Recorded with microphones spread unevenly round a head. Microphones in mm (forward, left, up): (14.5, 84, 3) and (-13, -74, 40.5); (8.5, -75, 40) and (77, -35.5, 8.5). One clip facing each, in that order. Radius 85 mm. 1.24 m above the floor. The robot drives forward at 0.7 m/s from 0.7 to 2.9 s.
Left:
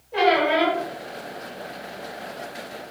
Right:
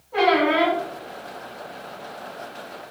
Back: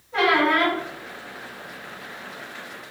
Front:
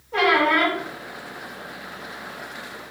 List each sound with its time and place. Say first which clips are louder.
0.1 s a squeak: right 1 dB, front 1 dB; 5° left, 1.4 m